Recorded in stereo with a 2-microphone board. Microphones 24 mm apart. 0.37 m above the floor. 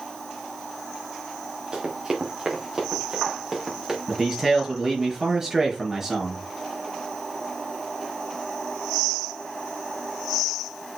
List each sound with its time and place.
1.7 s running footsteps: 35° right (ahead or behind), 4 m; by 4.0 s 15° right (ahead or behind), 5.5 m
4.1 s a man speaking: 15° right (ahead or behind), 5 m